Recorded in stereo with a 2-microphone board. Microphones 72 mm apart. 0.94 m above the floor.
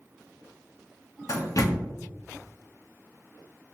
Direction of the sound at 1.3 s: 55° left (ahead or behind).